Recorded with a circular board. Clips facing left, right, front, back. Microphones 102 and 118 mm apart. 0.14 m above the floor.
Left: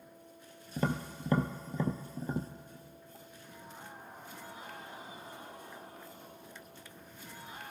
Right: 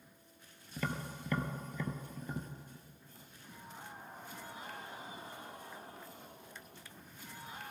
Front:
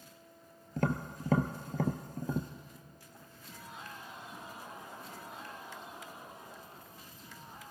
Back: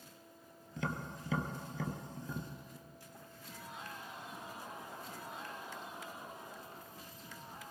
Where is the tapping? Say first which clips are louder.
Left 6 dB, front 7 dB; 35° left, 1.0 m.